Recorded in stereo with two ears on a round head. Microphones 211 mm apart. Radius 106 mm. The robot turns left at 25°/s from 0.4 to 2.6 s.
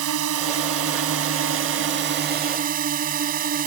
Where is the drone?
85° right; by 3.7 s 140° right.